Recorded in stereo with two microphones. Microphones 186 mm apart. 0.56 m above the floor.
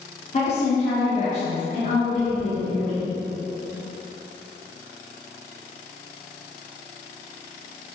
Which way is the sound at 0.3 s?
40° left (ahead or behind).